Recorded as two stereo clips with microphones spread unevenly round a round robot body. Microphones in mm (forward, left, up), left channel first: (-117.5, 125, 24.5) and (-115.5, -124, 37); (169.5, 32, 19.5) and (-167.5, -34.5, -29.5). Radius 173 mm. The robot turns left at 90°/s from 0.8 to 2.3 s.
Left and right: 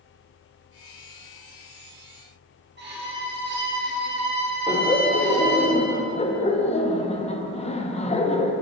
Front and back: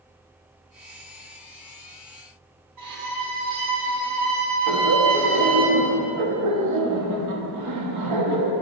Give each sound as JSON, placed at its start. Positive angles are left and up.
{"t": 2.8, "sound": "a violin", "azimuth_deg": -140, "distance_m": 2.0}
{"t": 4.7, "sound": "laughter", "azimuth_deg": 155, "distance_m": 1.0}